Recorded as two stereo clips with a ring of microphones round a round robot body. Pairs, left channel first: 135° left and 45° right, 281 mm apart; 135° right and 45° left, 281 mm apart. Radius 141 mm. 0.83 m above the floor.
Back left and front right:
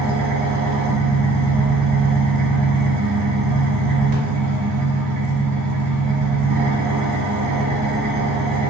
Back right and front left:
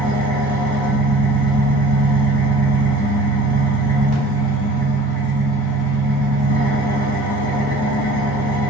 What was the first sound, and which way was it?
An engine running, 20° right.